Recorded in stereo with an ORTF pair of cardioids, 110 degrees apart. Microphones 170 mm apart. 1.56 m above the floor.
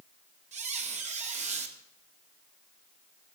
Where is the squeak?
45° right, 2.5 m.